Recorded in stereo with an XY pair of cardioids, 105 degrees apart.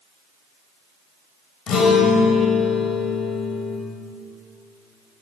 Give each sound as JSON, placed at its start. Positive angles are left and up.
{"t": 1.7, "sound": "a guitar", "azimuth_deg": 65, "distance_m": 6.0}